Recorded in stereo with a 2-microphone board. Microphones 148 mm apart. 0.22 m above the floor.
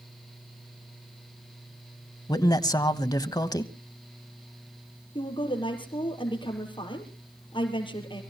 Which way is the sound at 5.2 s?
35° left (ahead or behind).